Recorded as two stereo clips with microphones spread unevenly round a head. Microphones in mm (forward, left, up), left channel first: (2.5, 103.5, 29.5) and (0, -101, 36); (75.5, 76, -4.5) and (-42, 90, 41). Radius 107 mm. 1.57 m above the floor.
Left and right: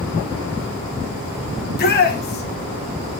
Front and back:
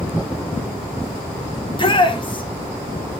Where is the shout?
45° left, 2.5 m.